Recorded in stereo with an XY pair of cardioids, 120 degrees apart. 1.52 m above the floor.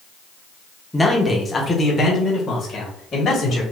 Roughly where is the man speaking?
Ahead.